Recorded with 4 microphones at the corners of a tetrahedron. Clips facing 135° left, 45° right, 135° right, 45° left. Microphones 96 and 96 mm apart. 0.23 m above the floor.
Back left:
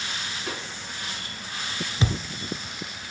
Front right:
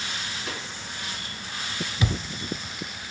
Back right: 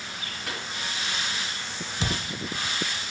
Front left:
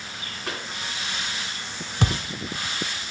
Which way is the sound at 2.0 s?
75° left.